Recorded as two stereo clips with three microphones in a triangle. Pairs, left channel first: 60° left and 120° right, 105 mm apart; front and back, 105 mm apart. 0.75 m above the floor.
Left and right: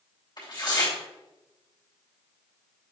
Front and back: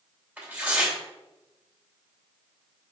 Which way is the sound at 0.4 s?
110° left.